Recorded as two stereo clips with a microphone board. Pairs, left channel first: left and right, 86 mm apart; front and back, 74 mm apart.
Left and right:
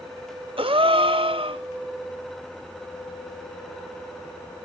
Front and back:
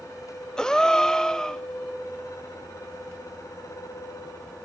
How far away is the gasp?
About 1.0 m.